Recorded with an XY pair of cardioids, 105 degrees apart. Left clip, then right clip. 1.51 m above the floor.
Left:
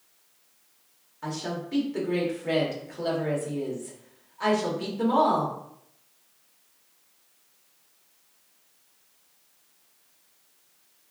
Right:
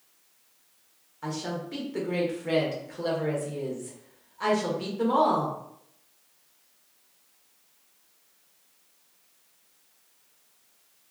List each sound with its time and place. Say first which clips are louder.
1.2 s a woman speaking: even; 5° left, 1.2 m